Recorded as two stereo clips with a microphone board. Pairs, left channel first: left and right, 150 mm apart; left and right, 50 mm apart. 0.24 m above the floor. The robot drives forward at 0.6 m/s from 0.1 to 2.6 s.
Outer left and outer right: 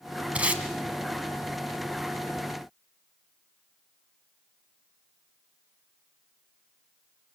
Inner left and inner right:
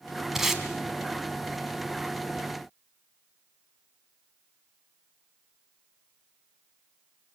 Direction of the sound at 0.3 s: 10° right (ahead or behind).